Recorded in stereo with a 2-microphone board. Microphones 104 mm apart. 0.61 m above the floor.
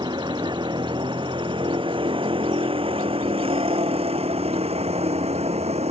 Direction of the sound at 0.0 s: 45° right (ahead or behind).